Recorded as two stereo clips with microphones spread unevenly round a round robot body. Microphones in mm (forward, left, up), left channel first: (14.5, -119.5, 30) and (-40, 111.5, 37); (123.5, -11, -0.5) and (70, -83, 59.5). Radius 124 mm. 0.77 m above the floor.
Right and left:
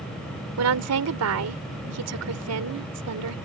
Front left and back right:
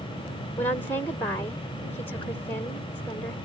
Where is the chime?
No chime in this recording.